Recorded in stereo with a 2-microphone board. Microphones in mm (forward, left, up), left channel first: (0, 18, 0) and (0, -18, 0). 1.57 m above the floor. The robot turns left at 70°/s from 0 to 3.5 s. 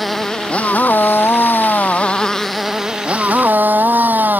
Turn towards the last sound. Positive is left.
turn(degrees=-60)